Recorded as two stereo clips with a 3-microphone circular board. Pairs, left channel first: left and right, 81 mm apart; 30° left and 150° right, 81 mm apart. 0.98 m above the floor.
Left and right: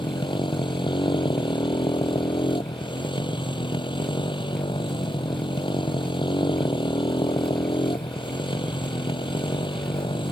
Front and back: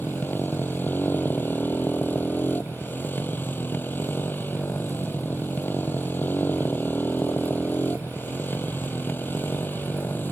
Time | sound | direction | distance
0.0 | a motorcycle | 95° left | ?